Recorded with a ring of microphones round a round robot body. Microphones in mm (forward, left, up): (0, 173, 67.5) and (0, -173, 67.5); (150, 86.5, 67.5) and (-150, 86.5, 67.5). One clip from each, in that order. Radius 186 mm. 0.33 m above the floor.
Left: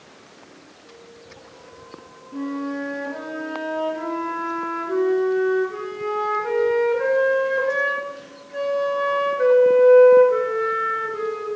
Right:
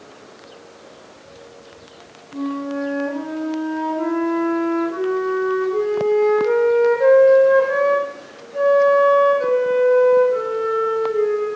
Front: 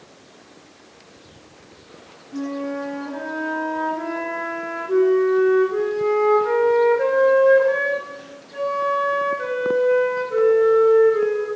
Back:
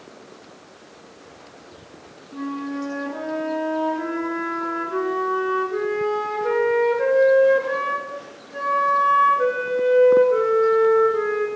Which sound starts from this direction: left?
A flute, at 2.3 s.